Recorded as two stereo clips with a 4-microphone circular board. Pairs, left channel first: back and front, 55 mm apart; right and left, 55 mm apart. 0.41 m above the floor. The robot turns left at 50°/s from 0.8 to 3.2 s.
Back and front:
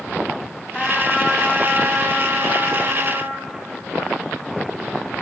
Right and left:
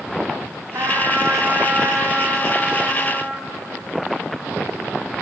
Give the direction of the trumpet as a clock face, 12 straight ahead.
9 o'clock.